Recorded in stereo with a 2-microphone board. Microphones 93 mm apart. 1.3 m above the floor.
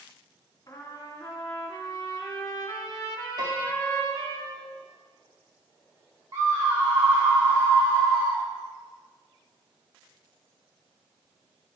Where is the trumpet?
40° left (ahead or behind), 2.5 m.